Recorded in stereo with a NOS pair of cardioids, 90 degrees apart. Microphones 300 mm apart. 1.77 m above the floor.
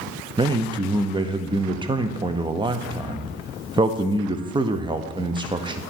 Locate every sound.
0.4 s a man speaking: 15° right, 0.7 m